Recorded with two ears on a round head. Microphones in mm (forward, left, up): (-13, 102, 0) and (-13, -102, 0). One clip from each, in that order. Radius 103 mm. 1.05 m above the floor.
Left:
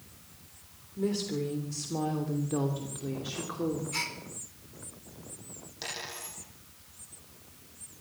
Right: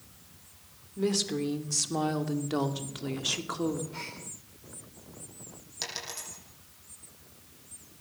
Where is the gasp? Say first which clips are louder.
Left 7 dB; 60° left (ahead or behind), 4.5 m.